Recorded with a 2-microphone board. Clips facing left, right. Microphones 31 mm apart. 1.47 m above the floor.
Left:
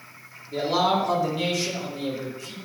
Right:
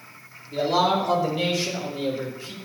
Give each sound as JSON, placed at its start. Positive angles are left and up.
{"t": 0.5, "sound": "a man speaking", "side_deg": 10, "distance_m": 2.5}